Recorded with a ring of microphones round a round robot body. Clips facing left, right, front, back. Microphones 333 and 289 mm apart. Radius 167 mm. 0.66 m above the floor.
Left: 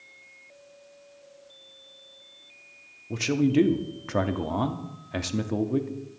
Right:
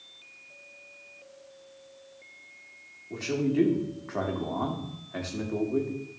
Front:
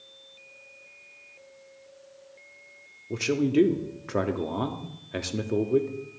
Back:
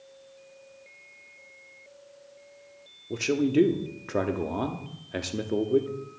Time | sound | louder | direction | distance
3.1 | a man speaking | left 5 dB, even | 85° left | 1.0 m